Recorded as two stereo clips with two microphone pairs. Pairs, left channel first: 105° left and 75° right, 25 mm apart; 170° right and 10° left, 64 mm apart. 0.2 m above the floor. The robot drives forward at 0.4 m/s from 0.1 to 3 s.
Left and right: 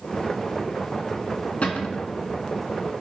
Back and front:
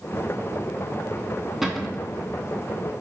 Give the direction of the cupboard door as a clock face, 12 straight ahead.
9 o'clock.